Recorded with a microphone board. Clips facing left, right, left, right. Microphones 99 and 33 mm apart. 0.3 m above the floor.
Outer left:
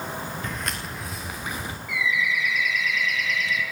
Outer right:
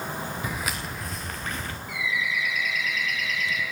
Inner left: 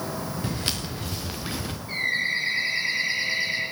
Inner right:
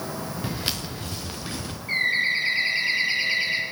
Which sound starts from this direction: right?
A bird, at 1.9 s.